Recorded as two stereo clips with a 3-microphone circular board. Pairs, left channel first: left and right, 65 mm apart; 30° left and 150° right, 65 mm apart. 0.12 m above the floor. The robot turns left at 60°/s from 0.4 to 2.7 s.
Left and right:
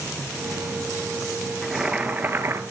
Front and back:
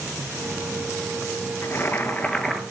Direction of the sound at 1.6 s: Straight ahead.